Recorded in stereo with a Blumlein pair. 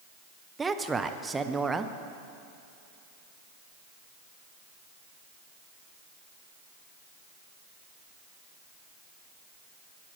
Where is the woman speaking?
10° right, 0.5 m.